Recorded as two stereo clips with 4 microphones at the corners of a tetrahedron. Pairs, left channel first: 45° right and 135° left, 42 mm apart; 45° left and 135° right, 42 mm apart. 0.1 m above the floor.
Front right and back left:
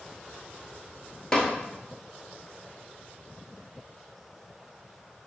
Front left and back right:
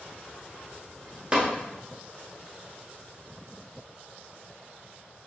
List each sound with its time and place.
1.3 s tapping: 105° right, 1.2 m